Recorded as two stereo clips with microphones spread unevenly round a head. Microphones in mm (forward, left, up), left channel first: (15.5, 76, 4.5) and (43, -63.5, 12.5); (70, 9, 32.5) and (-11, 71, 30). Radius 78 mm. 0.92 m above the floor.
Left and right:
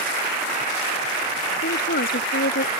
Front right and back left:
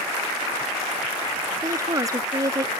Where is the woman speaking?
85° left.